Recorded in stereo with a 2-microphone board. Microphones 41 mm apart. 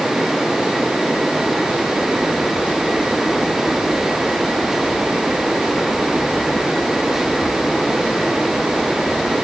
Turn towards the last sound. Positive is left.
No sound to turn to.